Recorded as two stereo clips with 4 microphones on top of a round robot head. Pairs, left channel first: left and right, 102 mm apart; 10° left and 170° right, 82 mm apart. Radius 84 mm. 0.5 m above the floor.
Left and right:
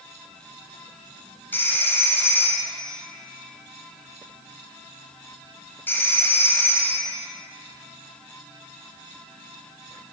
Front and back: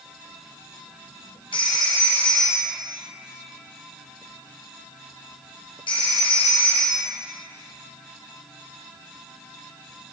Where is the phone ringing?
20° left, 1.7 m.